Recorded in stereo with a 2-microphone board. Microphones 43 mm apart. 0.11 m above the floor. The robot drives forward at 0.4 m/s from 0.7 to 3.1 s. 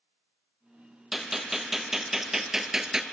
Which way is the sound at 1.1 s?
10° right (ahead or behind).